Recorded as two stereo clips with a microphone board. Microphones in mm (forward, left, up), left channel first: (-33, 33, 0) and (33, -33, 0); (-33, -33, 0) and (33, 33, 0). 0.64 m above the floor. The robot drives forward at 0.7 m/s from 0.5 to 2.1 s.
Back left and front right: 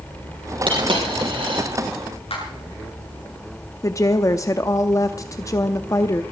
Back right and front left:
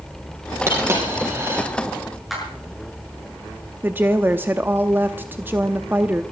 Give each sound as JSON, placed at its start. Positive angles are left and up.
{"t": 0.7, "sound": "a dropped coin", "azimuth_deg": -20, "distance_m": 5.5}
{"t": 2.3, "sound": "a clap", "azimuth_deg": 130, "distance_m": 7.0}
{"t": 3.8, "sound": "a woman speaking", "azimuth_deg": 100, "distance_m": 0.7}